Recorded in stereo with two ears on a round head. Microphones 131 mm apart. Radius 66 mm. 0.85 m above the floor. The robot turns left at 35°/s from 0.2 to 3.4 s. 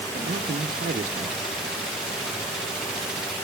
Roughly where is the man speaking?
Right.